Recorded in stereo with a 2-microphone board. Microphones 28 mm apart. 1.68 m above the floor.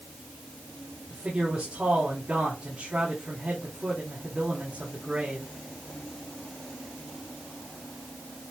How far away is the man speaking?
About 3.5 m.